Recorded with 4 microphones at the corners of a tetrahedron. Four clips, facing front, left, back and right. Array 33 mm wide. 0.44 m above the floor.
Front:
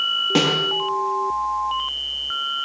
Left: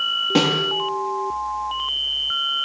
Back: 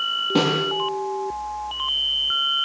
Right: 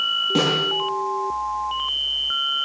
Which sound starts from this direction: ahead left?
A snare drum, at 0.3 s.